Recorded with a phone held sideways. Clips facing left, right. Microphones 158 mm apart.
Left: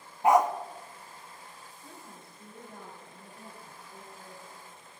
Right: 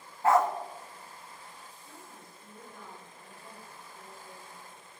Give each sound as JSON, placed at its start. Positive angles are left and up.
{"t": 0.2, "sound": "a dog barking", "side_deg": 15, "distance_m": 0.8}
{"t": 1.8, "sound": "a woman speaking", "side_deg": 65, "distance_m": 4.0}